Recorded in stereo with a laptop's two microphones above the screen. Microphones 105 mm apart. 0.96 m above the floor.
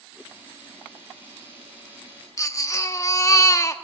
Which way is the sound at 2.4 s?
30° left (ahead or behind).